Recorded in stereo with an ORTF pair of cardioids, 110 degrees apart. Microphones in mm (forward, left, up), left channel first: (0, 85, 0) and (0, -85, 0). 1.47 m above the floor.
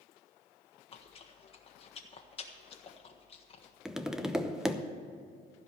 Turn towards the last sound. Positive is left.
turn(degrees=-5)